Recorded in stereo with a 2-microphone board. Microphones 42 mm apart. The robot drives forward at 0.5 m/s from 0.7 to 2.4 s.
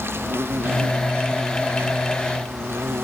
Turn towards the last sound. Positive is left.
turn(degrees=-75)  # may be behind; listen again after turning